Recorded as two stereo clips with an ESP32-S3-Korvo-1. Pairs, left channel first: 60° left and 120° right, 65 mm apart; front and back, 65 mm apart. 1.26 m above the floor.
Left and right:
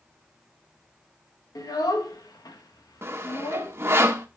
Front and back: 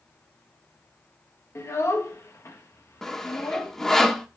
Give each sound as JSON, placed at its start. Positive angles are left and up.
{"t": 1.6, "sound": "a child speaking", "azimuth_deg": 45, "distance_m": 1.4}
{"t": 3.0, "sound": "sawing", "azimuth_deg": -80, "distance_m": 1.1}